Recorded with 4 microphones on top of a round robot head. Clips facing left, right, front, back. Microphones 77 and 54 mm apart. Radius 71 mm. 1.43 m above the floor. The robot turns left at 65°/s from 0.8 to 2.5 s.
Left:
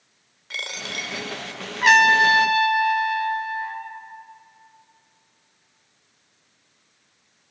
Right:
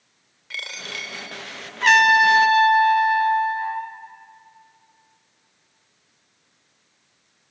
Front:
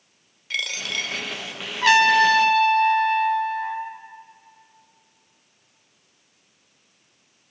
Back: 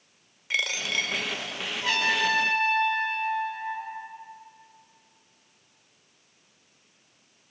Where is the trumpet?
10° left, 1.5 m; by 3.9 s 35° right, 1.5 m.